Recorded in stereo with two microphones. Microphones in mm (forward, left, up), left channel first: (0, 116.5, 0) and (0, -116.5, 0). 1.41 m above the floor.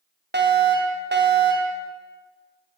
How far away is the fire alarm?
About 1.9 m.